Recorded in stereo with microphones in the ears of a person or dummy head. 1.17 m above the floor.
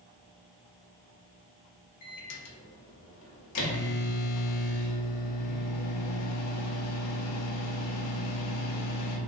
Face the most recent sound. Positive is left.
turn(degrees=80)